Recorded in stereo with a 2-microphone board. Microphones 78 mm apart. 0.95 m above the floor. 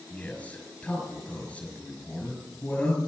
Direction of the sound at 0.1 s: 15° left (ahead or behind).